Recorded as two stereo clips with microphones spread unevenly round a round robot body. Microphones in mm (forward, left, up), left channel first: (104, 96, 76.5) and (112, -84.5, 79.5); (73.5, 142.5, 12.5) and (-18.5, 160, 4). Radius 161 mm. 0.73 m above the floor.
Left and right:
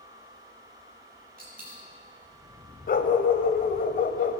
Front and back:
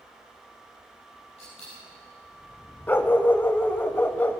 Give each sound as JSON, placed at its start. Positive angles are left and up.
{"t": 1.4, "sound": "a dropped coin", "azimuth_deg": -50, "distance_m": 6.5}
{"t": 2.9, "sound": "a dog barking", "azimuth_deg": 55, "distance_m": 0.9}